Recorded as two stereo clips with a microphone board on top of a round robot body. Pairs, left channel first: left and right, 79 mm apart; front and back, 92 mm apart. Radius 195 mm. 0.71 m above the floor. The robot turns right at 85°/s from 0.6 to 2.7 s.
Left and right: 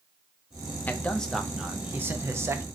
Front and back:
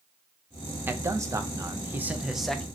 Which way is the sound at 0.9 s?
135° left.